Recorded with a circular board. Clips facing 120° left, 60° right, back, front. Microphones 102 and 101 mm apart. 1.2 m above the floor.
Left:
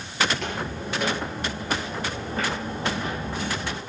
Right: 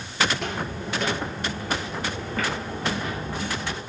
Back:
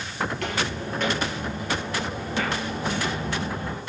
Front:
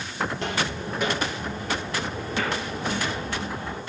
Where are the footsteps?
20° left, 1.3 m; by 3.8 s 150° left, 1.7 m.